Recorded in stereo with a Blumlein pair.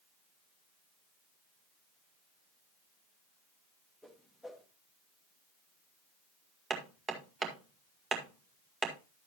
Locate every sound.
4.0 s a whoosh: straight ahead, 1.4 m
6.7 s hammering: 15° right, 1.7 m